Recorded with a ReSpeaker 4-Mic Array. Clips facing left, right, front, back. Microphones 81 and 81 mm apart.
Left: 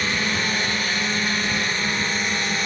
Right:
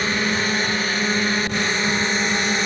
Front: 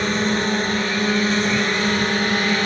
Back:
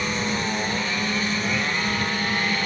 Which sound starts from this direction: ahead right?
A drone, at 0.0 s.